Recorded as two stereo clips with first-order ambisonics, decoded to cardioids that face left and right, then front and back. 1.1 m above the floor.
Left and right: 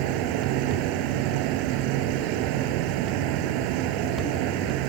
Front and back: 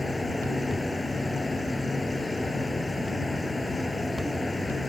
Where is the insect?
80° right.